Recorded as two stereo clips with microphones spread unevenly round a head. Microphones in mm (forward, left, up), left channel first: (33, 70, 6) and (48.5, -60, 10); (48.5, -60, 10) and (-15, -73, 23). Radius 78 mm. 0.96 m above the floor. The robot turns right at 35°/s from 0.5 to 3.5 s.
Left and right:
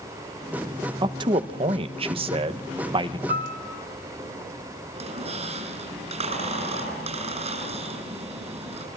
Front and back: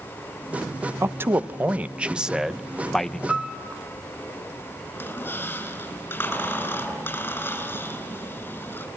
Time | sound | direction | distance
1.0 | a man speaking | 125° right | 0.9 m
3.3 | a piano | 80° right | 3 m
4.9 | a squeak | 45° right | 7.5 m